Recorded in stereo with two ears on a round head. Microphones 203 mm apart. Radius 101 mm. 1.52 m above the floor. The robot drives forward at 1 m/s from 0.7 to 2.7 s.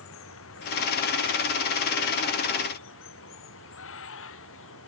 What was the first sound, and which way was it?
Running water, 65° left (ahead or behind).